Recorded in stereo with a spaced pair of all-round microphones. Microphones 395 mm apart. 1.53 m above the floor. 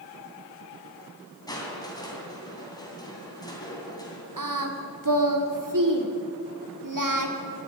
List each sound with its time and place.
1.5 s crushing: 10° left (ahead or behind), 3 m
4.4 s singing: 50° right (ahead or behind), 1.2 m